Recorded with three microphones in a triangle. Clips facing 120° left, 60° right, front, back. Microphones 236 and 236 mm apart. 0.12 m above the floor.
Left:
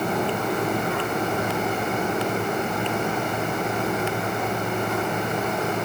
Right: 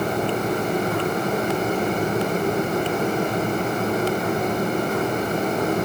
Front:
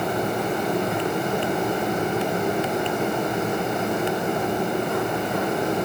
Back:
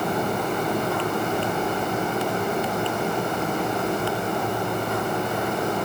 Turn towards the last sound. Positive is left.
No sound to turn to.